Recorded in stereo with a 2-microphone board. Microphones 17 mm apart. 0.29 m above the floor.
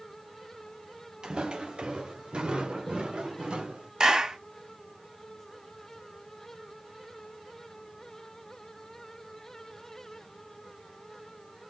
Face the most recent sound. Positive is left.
turn(degrees=-50)  # may be behind; listen again after turning